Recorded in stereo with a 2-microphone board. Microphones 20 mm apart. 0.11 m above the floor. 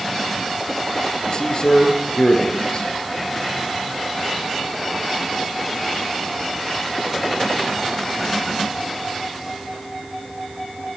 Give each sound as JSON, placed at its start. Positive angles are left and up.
{"t": 1.3, "sound": "a man speaking", "side_deg": 45, "distance_m": 1.9}